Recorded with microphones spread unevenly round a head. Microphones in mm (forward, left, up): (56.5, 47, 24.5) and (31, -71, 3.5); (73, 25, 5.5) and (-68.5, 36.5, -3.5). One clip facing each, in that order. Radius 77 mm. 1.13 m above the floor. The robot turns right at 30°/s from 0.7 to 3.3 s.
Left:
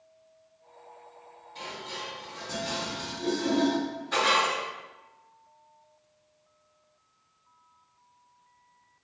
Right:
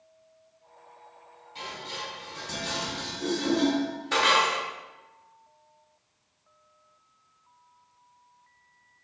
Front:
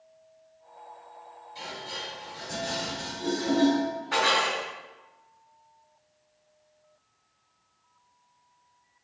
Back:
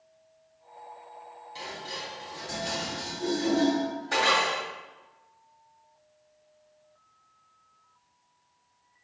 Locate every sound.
1.6 s dishes clattering: 170° left, 2.0 m; by 4.6 s 135° right, 2.0 m